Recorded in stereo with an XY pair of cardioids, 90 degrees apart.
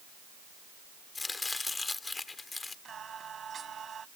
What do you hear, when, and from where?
1.1 s chopping: 30° left
2.9 s singing: 50° right